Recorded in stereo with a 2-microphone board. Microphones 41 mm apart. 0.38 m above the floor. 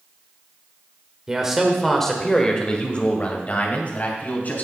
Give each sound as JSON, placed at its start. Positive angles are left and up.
{"t": 1.3, "sound": "a man speaking", "side_deg": -15, "distance_m": 1.4}